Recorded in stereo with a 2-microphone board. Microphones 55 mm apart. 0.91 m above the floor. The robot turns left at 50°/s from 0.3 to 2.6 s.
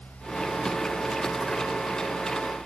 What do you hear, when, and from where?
Only background noise.